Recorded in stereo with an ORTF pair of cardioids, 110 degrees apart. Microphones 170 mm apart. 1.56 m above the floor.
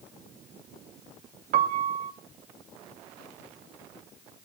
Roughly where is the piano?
Ahead right.